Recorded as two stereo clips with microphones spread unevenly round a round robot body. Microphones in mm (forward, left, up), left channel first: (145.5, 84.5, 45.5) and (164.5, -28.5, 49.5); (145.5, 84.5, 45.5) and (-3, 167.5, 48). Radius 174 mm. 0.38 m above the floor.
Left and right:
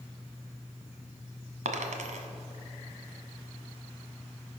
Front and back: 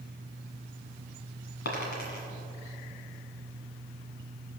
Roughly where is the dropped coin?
Right.